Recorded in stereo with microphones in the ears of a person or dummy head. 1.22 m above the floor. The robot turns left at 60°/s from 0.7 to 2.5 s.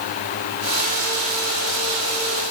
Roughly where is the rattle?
No rattle in this recording.